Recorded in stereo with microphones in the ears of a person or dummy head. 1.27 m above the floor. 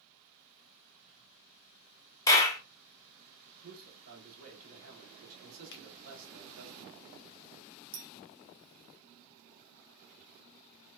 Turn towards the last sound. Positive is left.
turn(degrees=-65)  # may be behind; listen again after turning